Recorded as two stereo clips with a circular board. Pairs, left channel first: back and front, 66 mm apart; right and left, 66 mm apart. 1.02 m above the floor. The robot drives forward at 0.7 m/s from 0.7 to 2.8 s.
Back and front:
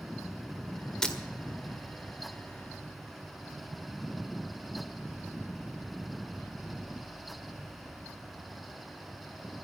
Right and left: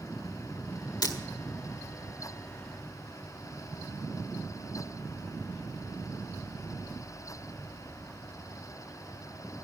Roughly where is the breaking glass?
Right.